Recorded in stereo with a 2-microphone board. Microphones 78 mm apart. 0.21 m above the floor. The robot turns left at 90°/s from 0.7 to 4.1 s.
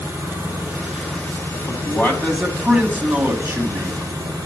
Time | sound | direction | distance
0.0 | an engine running | 145° right | 3 m
1.7 | a man speaking | 75° left | 1.4 m